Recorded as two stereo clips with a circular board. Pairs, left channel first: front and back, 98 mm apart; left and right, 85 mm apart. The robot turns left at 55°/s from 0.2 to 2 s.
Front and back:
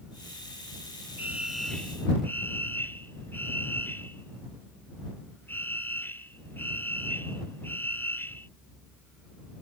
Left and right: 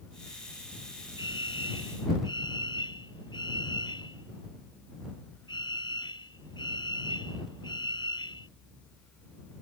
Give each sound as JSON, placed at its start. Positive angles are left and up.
{"t": 1.2, "sound": "a fire alarm", "azimuth_deg": 115}